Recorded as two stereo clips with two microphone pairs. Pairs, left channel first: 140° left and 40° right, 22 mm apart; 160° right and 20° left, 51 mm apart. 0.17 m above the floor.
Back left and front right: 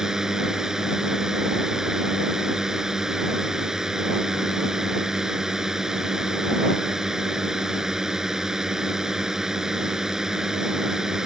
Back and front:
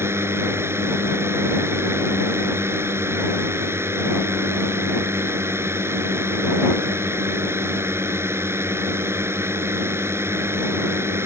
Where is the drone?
20° left.